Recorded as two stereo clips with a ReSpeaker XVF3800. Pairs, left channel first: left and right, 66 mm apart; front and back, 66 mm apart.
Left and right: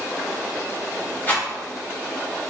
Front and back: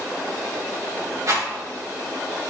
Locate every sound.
1.3 s a rattle: 150° left, 2.5 m